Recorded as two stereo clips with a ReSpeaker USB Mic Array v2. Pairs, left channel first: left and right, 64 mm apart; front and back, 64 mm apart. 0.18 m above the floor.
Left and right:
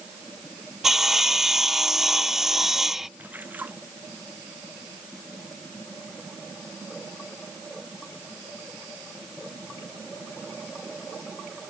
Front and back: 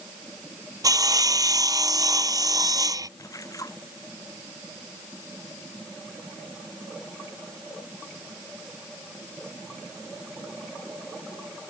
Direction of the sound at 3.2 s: 25° right.